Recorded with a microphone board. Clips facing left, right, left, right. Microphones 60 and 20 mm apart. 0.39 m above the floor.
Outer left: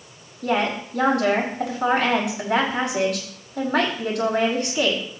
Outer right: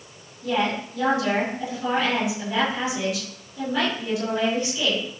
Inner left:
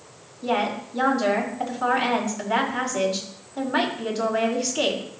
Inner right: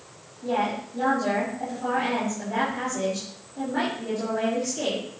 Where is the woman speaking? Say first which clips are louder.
Outer left 2 dB, inner left 2 dB; 75° left (ahead or behind), 4.5 m.